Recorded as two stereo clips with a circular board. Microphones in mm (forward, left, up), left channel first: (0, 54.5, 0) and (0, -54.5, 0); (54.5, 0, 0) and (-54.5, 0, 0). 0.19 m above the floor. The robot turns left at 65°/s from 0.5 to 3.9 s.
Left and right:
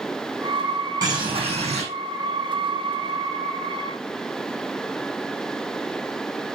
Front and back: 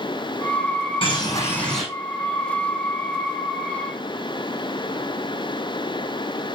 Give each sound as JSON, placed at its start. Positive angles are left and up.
{"t": 1.0, "sound": "a bird", "azimuth_deg": -35, "distance_m": 6.0}